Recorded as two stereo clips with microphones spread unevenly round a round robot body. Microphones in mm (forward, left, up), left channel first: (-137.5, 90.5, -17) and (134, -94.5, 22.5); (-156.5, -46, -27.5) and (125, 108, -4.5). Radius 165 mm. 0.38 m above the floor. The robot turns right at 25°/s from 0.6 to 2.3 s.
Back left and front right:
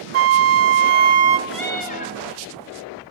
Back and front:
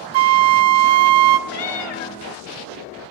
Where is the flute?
20° left, 0.9 m; by 1.4 s 40° left, 0.9 m.